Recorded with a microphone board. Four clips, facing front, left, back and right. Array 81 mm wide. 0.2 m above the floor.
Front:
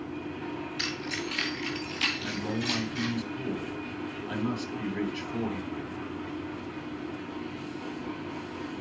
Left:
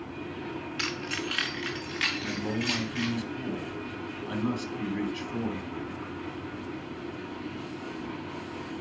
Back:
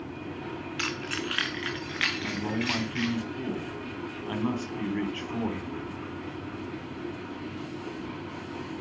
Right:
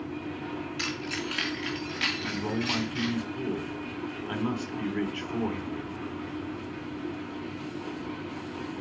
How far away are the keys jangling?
About 1.4 m.